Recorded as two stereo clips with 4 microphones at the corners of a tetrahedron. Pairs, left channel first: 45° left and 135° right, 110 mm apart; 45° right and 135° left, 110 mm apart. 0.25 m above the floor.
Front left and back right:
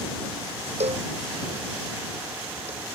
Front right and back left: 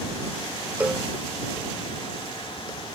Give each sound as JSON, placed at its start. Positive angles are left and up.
{"t": 0.8, "sound": "a cowbell", "azimuth_deg": -145}